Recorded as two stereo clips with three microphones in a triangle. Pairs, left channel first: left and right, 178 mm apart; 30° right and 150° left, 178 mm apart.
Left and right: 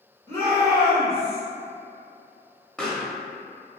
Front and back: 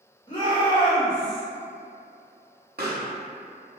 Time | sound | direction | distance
0.3 | a shout | 25° left | 1.6 m
2.8 | a pop | 175° left | 0.7 m